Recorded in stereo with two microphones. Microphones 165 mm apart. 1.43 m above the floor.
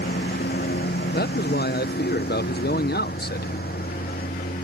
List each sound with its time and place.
0.0 s a lawn mower: 85° left; by 4.6 s 65° left (ahead or behind)
1.1 s a man speaking: 75° left (ahead or behind)